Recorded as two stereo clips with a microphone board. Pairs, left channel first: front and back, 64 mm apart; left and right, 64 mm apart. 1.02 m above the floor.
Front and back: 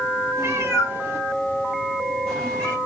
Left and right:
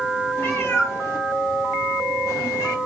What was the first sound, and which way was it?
A cat meowing, 140° left.